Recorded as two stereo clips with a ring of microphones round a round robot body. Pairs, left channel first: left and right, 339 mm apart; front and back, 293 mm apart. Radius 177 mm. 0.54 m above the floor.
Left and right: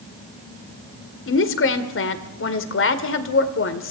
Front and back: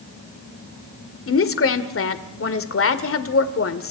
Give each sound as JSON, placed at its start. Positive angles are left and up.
{"t": 1.3, "sound": "a woman speaking", "azimuth_deg": 40, "distance_m": 2.0}